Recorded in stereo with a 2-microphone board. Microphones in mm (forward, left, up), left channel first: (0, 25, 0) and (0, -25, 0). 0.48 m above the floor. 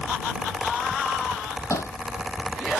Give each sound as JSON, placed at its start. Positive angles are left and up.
{"t": 1.7, "sound": "hammering", "side_deg": 75}